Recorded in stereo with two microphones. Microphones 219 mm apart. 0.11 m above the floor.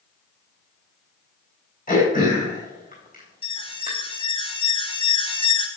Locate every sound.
1.9 s throat clearing: 35° left (ahead or behind), 4 m
3.4 s an alarm: 25° left (ahead or behind), 1.2 m